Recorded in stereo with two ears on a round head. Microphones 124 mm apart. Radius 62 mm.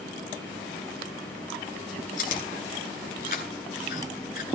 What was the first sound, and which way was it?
Chewing, 65° left (ahead or behind).